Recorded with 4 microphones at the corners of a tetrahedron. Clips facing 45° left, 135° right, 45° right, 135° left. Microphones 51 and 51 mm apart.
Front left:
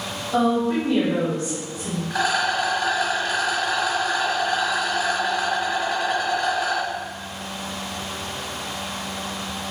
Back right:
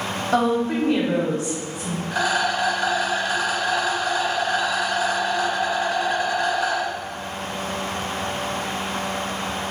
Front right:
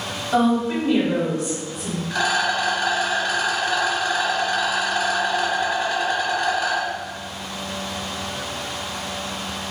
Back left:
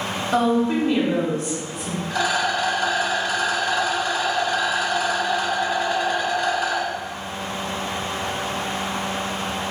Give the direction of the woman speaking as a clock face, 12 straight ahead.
5 o'clock.